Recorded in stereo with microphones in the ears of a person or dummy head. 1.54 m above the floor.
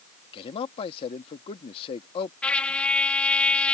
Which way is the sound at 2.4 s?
5° left (ahead or behind).